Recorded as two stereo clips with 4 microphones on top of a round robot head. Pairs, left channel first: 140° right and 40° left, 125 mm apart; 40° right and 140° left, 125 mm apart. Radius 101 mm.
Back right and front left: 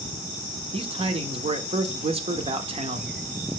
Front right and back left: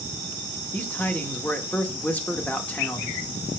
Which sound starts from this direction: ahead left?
A man speaking, at 0.7 s.